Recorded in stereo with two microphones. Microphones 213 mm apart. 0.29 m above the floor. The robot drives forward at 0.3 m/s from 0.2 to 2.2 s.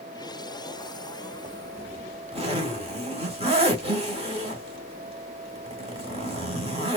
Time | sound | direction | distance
1.4 | a zipper | 30° right (ahead or behind) | 0.9 m